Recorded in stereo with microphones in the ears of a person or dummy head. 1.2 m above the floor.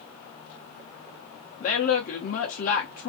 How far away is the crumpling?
I don't hear crumpling.